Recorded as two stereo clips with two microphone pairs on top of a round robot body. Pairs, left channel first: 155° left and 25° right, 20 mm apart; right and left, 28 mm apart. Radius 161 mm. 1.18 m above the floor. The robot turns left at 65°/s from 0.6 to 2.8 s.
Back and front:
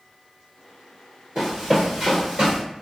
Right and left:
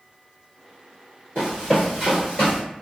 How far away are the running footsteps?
About 1.3 m.